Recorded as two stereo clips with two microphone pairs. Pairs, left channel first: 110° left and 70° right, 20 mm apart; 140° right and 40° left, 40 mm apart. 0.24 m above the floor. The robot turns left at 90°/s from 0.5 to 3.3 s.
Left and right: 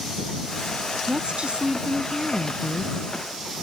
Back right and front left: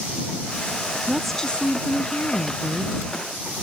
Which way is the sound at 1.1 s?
40° right.